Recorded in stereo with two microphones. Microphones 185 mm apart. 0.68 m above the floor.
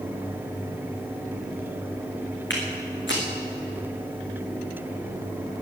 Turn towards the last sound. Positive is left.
turn(degrees=80)